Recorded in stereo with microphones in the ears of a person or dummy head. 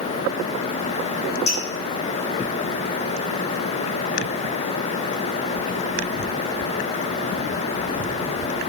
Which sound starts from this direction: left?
Dripping, at 1.5 s.